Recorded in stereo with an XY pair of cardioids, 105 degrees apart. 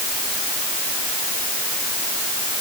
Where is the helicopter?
I don't hear a helicopter.